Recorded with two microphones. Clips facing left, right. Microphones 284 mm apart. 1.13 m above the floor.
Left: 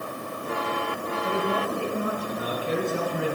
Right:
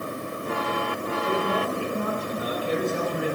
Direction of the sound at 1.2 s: 15° left (ahead or behind).